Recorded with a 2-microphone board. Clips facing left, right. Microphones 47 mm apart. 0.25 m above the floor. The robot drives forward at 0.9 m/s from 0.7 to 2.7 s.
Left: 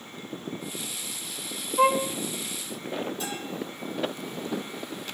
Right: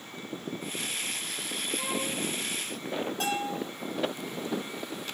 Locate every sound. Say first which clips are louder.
1.8 s a violin: left 14 dB; 65° left (ahead or behind), 1.3 m; by 2.1 s 80° left, 1.2 m
3.2 s a bell: right 4 dB; 50° right (ahead or behind), 7.5 m